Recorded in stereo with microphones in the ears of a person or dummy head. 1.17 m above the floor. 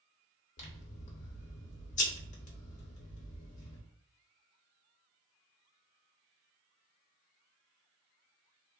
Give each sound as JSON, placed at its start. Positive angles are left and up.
{"t": 0.6, "sound": "scissors", "side_deg": 35, "distance_m": 0.7}